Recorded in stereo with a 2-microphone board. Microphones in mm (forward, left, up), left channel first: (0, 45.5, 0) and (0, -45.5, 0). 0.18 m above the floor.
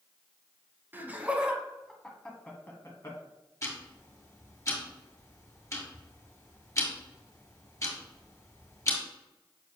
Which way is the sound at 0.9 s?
20° right (ahead or behind).